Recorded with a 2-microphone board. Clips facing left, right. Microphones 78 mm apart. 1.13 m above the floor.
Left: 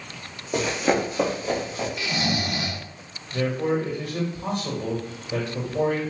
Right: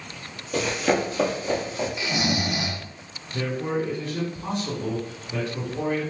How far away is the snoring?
About 0.6 m.